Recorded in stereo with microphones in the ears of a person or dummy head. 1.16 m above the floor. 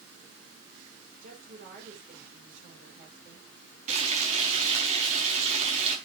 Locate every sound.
1.2 s a woman speaking: 50° right (ahead or behind), 4.5 m
3.9 s frying: 40° right (ahead or behind), 5 m